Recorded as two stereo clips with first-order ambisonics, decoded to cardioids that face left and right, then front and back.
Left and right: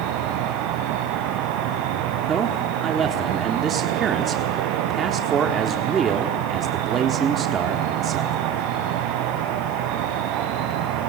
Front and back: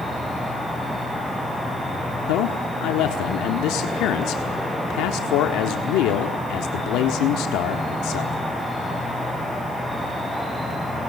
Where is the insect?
95° right, 2.5 m.